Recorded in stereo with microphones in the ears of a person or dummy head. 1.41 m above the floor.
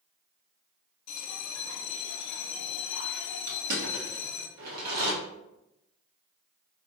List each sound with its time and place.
1.1 s a bell: 75° left (ahead or behind), 0.5 m
3.5 s crushing: 50° right (ahead or behind), 1.4 m